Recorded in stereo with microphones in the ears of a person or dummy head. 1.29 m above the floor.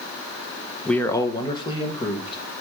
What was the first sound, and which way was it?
A man speaking, centre (ahead or behind).